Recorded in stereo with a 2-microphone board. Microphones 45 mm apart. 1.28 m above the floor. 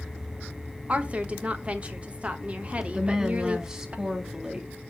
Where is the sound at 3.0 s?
15° right (ahead or behind), 2.0 m.